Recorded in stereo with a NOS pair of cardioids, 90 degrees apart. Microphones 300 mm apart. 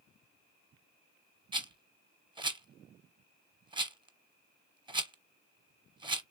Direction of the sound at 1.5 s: 15° right.